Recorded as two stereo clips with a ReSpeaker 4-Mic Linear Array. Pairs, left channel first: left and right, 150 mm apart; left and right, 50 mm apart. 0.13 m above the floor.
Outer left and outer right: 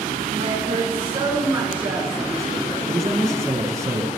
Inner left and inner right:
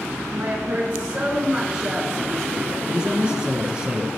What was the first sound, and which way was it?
A woman speaking, 45° right (ahead or behind).